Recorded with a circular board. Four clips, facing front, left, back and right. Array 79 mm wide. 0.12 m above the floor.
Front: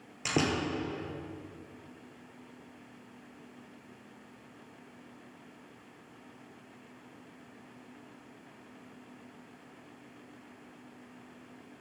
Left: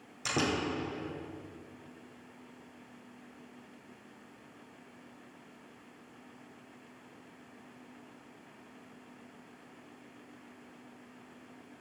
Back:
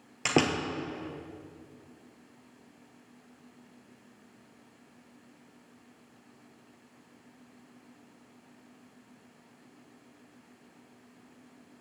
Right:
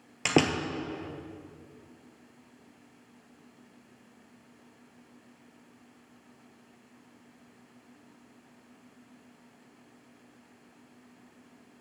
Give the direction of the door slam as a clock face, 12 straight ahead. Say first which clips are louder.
Right 6 dB, back 3 dB; 4 o'clock.